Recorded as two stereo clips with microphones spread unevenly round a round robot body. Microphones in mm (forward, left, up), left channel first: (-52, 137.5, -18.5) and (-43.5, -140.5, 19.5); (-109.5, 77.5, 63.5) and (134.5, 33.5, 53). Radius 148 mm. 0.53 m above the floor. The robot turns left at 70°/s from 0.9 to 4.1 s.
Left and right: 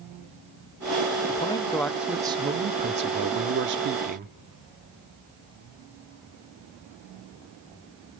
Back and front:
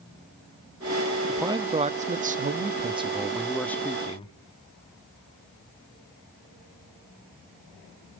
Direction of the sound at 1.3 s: 60° left.